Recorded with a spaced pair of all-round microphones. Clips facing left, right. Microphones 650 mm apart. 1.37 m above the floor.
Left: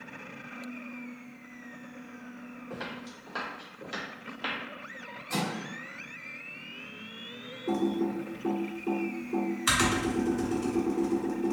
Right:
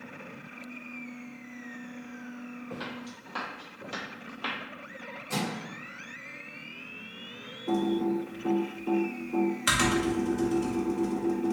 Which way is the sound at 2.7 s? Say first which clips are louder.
Right 1 dB; 35° right (ahead or behind).